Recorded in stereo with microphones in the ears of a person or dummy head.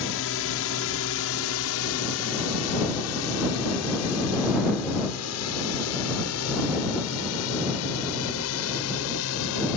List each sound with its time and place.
0.0 s a drone: 65° left (ahead or behind); by 9.8 s 75° left (ahead or behind)